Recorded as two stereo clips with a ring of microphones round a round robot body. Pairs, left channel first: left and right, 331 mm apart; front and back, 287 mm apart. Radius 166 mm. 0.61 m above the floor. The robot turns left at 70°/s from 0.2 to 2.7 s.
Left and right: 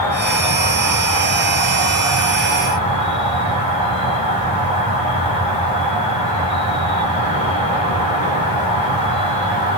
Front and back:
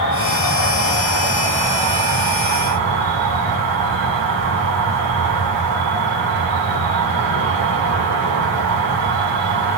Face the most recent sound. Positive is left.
turn(degrees=-165)